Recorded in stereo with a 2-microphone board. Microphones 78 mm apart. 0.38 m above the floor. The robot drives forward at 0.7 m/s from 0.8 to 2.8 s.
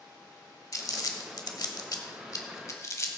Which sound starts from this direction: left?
Crumpling, at 0.7 s.